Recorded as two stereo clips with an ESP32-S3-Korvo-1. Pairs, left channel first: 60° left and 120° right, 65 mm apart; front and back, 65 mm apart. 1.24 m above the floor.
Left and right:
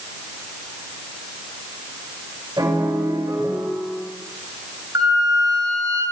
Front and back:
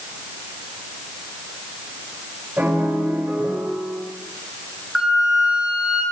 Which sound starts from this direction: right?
A flute, at 5.0 s.